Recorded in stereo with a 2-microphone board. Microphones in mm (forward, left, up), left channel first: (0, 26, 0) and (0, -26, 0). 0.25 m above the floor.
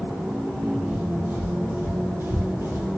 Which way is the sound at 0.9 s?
35° right (ahead or behind).